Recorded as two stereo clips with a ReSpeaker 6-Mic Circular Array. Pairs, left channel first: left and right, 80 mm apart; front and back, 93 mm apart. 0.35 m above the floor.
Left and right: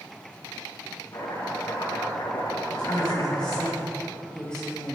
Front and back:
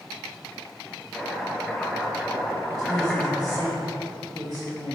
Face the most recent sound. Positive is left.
turn(degrees=165)